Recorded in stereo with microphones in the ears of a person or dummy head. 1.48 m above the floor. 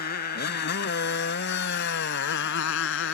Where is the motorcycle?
50° left (ahead or behind); by 3.2 s 70° left (ahead or behind).